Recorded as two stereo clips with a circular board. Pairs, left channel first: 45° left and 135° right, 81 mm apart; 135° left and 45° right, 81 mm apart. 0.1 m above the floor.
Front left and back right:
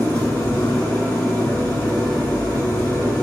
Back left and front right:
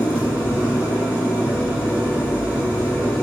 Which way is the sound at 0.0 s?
10° left.